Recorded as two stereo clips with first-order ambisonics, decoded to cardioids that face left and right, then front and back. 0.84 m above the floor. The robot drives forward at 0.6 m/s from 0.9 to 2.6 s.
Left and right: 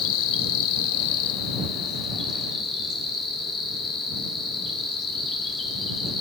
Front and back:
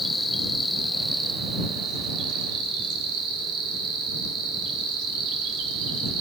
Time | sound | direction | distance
0.0 | an insect | 95° left | 0.7 m